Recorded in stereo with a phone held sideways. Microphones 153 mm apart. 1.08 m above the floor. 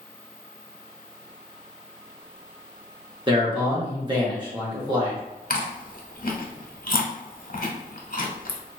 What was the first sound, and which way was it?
A man speaking, 30° right (ahead or behind).